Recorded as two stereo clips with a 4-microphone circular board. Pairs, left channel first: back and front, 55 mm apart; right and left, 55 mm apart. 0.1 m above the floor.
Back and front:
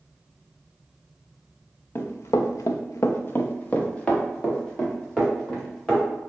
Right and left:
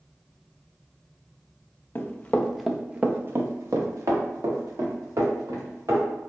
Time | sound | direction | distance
1.9 | running footsteps | 140° right | 0.7 m